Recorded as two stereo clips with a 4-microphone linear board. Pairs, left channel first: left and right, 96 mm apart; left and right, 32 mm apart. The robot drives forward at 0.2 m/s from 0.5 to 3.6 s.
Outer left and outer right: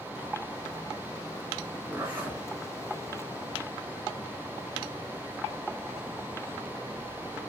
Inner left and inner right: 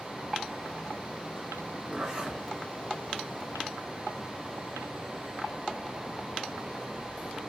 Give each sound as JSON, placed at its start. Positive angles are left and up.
{"t": 1.9, "sound": "a zipper", "side_deg": -15, "distance_m": 1.7}